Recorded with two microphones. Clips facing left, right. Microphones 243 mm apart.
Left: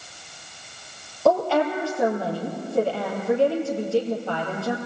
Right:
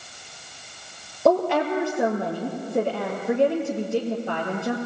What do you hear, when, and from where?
1.2 s a woman speaking: 20° right (ahead or behind), 3.5 m